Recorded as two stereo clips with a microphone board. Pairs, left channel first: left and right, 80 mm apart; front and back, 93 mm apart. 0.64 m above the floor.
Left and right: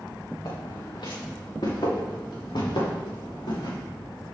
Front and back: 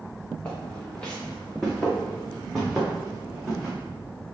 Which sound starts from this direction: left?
Footsteps, at 0.5 s.